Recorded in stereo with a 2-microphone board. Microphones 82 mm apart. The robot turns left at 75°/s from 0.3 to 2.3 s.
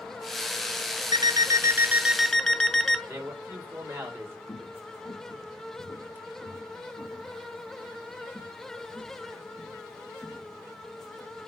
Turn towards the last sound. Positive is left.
turn(degrees=-5)  # may be behind; listen again after turning